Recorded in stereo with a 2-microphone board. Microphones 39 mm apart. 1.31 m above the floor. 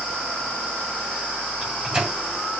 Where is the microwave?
10° right (ahead or behind), 7.5 m.